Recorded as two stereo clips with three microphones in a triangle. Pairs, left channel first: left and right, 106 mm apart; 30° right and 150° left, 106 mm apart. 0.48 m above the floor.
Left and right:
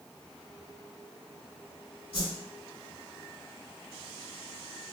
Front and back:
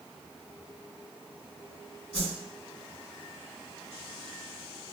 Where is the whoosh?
55° left, 1.2 m.